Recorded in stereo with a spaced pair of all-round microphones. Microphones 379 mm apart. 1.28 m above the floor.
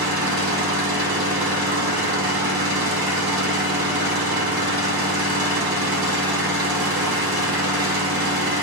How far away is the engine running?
About 2 m.